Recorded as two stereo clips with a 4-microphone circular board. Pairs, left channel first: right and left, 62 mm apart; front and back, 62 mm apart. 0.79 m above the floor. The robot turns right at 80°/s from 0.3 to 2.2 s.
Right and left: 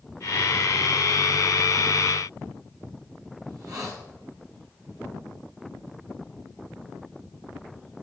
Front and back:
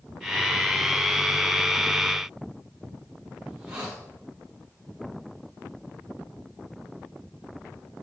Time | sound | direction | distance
3.5 | a hiss | 110° left | 6.5 m